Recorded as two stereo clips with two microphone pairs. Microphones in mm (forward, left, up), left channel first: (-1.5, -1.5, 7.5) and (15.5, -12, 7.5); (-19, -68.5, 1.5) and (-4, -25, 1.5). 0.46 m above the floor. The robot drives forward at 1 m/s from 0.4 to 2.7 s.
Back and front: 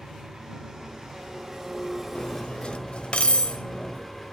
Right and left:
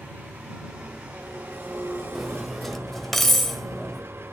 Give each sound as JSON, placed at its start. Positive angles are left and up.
{"t": 0.0, "sound": "an engine running", "azimuth_deg": 25, "distance_m": 3.0}
{"t": 2.1, "sound": "cutlery clinking", "azimuth_deg": 160, "distance_m": 0.9}